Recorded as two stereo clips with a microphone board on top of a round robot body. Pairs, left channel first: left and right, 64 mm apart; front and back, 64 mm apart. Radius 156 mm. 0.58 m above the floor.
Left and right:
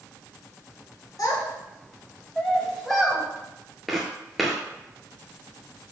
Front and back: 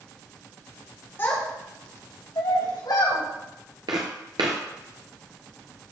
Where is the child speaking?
55° left, 2 m; by 3.2 s 5° right, 3.5 m.